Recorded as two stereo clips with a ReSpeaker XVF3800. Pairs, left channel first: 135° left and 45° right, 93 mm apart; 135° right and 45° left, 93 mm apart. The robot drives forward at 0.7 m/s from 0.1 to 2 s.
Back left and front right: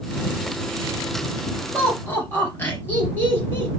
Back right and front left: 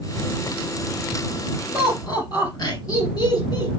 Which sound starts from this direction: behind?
Laughter, at 1.7 s.